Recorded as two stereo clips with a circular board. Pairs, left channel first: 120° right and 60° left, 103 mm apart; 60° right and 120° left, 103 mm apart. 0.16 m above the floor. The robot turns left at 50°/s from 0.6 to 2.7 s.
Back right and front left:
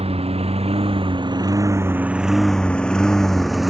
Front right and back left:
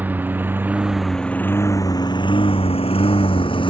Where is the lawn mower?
45° left; by 3.7 s 30° right.